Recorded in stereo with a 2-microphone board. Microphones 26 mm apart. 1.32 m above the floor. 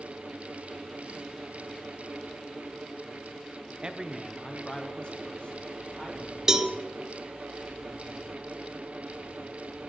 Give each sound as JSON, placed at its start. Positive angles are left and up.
{"t": 3.8, "sound": "a man speaking", "side_deg": -35, "distance_m": 0.8}
{"t": 6.5, "sound": "a cowbell", "side_deg": -20, "distance_m": 0.8}